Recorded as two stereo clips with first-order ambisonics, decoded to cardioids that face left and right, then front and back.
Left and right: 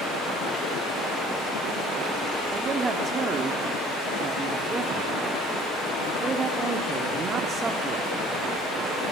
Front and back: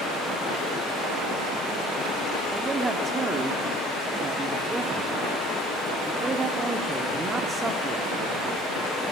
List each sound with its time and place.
0.0 s running water: 40° left, 9.5 m
2.5 s a man speaking: 130° right, 0.9 m